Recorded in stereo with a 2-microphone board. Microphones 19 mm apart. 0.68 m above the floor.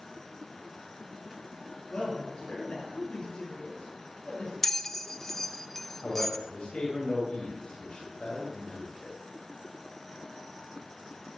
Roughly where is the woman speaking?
Left.